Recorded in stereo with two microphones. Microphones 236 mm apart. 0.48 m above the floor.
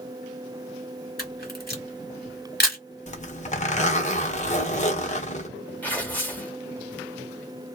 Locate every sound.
1.2 s a camera shutter: 40° left (ahead or behind), 1.5 m
3.1 s a zipper: 30° left (ahead or behind), 0.8 m
5.8 s tearing paper: 5° left (ahead or behind), 1.2 m